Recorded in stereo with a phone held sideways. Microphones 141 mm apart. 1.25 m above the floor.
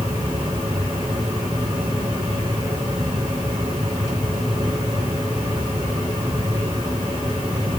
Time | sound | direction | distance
0.0 | a fan | 30° right (ahead or behind) | 3.5 m